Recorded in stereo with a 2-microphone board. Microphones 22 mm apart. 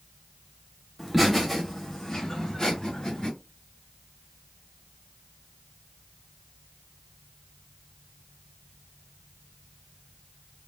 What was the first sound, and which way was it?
Laughter, 5° right (ahead or behind).